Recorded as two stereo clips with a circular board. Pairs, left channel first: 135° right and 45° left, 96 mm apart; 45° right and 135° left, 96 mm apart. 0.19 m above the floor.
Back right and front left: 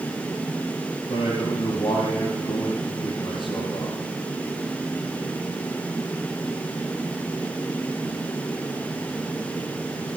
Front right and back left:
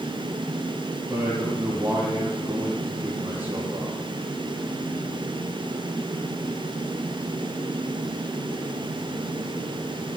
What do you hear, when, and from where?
1.1 s a man speaking: 155° right, 5.5 m